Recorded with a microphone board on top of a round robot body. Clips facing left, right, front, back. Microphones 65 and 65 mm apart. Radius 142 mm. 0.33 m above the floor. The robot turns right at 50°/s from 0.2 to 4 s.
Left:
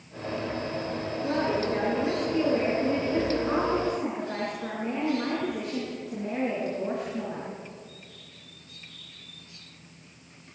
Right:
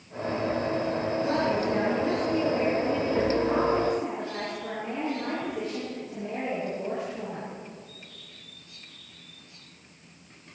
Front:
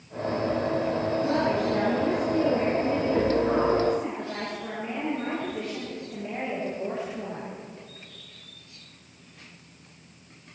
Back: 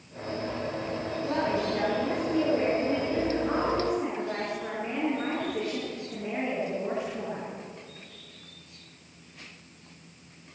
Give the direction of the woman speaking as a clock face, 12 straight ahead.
1 o'clock.